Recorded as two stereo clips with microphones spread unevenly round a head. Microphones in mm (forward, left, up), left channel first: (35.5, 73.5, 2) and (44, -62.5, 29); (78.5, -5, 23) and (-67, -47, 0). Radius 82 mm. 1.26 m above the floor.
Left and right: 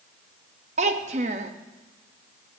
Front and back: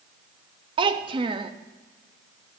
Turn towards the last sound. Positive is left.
turn(degrees=-105)